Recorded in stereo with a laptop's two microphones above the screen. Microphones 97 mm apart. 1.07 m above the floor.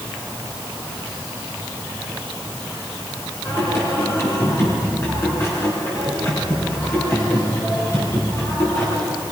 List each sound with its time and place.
3.5 s singing: 30° left (ahead or behind), 5 m